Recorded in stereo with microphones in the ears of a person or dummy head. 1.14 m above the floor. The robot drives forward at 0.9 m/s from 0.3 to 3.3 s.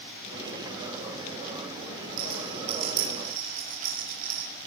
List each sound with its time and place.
2.2 s a rattle: 40° right (ahead or behind), 9.5 m